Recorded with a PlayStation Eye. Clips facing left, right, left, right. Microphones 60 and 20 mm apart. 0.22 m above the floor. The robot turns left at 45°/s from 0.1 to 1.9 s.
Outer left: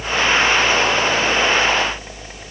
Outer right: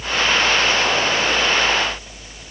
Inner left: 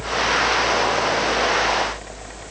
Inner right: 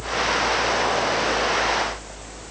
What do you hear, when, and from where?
Only background noise.